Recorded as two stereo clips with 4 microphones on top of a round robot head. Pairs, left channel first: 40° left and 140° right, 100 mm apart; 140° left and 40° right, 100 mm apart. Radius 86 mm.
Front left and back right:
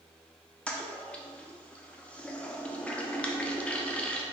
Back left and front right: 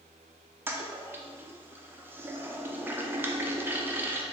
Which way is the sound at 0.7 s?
15° right.